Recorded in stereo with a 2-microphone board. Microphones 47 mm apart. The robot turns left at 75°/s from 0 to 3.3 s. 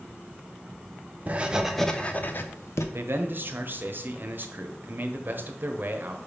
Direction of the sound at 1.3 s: 145° right.